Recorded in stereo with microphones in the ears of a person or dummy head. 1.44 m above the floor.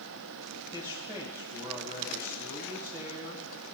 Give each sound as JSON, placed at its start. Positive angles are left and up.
{"t": 0.7, "sound": "a man speaking", "side_deg": -15, "distance_m": 1.6}